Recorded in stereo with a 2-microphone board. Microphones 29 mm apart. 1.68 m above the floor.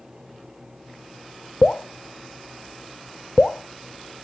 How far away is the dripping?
About 0.6 m.